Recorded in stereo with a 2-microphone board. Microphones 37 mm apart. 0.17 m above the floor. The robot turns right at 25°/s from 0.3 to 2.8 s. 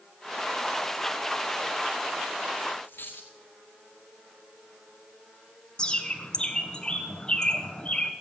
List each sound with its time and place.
2.8 s a dropped coin: 70° left (ahead or behind), 1.7 m
5.8 s a bird: 25° left (ahead or behind), 1.4 m